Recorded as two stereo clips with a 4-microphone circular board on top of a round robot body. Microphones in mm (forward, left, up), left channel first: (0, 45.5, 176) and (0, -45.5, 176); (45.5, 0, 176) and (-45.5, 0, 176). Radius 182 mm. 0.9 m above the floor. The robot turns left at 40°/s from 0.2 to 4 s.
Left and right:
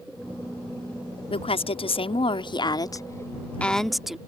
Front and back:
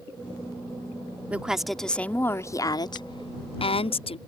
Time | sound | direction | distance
1.3 | a woman speaking | 105° left | ?